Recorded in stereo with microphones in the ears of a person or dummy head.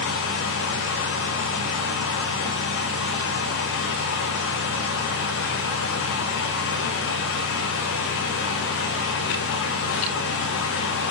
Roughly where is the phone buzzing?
I don't hear a phone buzzing.